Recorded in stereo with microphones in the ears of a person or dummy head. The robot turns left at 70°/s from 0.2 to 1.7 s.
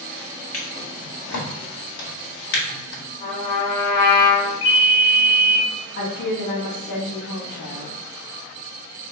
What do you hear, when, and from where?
0.5 s a drawer: 5° left (ahead or behind), 1.5 m; by 3.0 s 65° left (ahead or behind), 1.5 m
3.2 s a trumpet: 20° left (ahead or behind), 1.5 m
4.6 s a ringtone: 70° left (ahead or behind), 1.2 m
6.0 s a woman speaking: 60° left (ahead or behind), 1.3 m